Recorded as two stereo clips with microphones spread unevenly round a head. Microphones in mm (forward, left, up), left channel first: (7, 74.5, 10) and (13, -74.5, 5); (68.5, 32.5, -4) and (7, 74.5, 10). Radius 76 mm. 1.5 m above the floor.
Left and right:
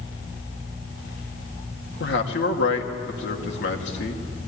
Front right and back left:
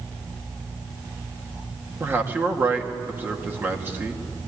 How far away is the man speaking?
About 2 m.